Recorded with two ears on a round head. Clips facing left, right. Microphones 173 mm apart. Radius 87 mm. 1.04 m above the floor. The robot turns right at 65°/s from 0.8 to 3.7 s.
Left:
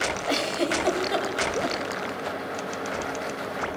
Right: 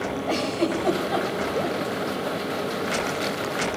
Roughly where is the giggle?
Centre.